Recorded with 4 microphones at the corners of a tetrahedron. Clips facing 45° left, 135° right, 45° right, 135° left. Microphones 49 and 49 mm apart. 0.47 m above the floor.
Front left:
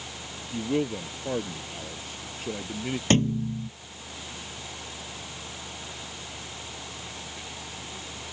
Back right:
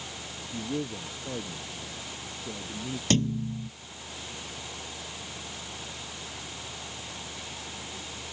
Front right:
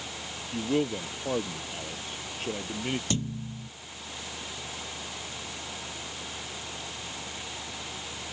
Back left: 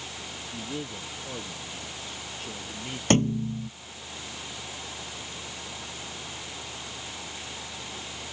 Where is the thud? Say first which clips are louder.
Front left 3 dB, back left 9 dB; 100° left.